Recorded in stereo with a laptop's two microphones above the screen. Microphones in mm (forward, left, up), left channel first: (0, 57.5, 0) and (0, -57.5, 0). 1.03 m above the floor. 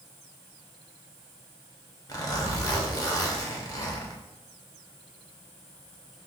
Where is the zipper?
30° left (ahead or behind), 0.8 m.